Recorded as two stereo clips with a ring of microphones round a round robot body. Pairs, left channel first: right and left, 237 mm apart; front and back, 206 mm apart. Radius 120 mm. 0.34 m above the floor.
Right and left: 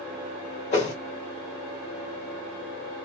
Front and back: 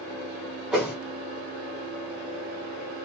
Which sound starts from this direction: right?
A whoosh, at 0.7 s.